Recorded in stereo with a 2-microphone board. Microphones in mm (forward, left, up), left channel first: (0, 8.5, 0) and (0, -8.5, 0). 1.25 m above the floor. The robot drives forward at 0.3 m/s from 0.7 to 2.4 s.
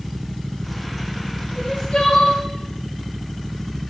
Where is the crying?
60° left (ahead or behind), 0.7 m; by 2.4 s 50° left (ahead or behind), 0.7 m.